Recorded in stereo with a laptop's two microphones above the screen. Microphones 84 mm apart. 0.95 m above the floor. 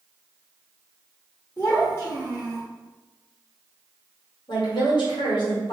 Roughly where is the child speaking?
Left.